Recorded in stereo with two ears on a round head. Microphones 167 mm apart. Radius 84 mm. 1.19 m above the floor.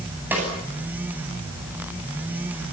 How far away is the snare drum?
About 10 m.